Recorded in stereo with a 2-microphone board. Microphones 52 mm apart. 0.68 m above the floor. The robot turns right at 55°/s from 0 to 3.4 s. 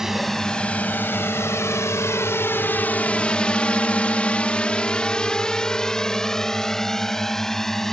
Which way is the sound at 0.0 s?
10° right (ahead or behind).